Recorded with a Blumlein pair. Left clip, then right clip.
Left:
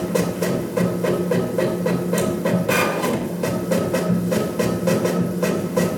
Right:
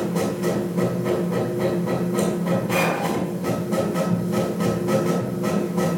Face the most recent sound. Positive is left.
turn(degrees=55)